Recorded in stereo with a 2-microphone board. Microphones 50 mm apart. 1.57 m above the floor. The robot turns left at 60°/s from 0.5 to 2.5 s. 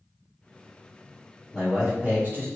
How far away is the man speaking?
About 1.6 m.